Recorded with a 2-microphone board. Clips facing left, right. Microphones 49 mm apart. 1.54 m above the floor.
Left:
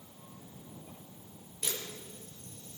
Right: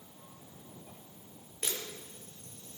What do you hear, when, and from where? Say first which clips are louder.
1.6 s a camera shutter: even; 35° right (ahead or behind), 5 m